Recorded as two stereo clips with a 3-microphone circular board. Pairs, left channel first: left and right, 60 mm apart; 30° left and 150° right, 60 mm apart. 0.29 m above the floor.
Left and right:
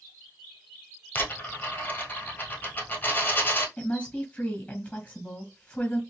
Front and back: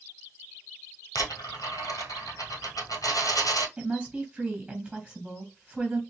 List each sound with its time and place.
1.1 s a dropped coin: 35° left, 1.5 m
3.8 s a woman speaking: 150° left, 1.9 m